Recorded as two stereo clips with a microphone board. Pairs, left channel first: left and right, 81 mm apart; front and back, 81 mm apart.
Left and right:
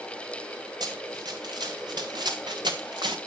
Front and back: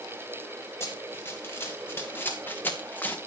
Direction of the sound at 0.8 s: 60° right.